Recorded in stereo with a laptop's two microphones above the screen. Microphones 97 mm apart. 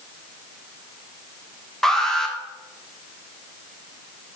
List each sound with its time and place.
1.8 s an alarm: 5° left (ahead or behind), 1.3 m